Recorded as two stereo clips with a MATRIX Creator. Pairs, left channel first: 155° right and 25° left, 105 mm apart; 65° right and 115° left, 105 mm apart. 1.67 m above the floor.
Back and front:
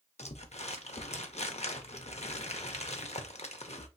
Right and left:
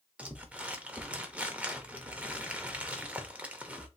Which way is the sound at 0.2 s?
170° right.